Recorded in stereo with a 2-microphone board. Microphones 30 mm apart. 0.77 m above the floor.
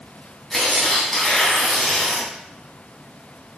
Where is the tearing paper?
15° left (ahead or behind), 3 m.